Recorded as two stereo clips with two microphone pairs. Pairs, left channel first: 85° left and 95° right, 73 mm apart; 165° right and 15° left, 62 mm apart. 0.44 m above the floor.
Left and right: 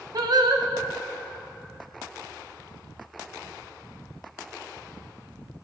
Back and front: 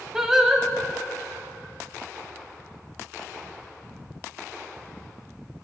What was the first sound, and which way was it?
Singing, 70° right.